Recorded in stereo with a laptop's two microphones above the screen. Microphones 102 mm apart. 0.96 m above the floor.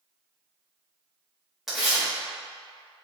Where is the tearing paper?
Centre (ahead or behind), 1.1 m.